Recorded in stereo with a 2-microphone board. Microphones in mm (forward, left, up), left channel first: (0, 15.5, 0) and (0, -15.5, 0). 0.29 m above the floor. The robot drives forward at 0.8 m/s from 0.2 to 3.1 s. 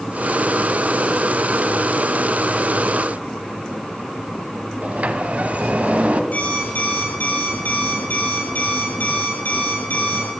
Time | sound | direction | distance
4.8 | a sliding door | 50° right (ahead or behind) | 1.0 m
6.3 | an alarm clock | 60° left (ahead or behind) | 4.5 m